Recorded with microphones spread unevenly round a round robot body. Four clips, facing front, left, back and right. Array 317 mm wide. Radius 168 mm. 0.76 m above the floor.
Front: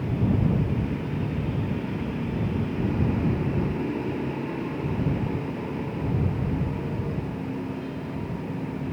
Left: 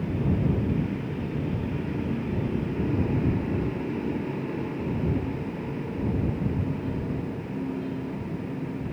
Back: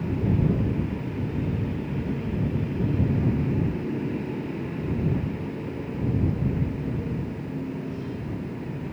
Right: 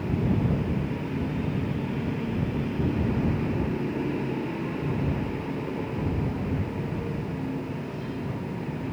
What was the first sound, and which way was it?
Only background noise.